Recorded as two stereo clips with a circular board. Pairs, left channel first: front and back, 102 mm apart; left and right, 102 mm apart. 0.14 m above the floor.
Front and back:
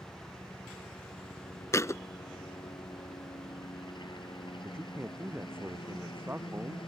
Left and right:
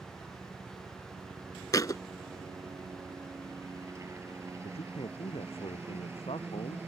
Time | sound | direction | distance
0.0 | a helicopter | 45° right | ?
1.7 | a thud | 50° left | ?
4.6 | a man speaking | 110° left | ?